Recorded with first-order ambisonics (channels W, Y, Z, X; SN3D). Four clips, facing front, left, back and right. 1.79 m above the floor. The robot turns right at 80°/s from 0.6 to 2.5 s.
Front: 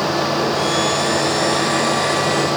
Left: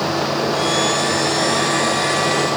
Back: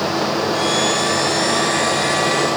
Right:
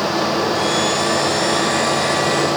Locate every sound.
Only background noise.